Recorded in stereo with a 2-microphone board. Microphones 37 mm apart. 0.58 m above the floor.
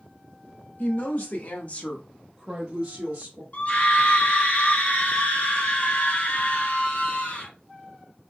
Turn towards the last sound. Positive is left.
turn(degrees=40)  # may be behind; listen again after turning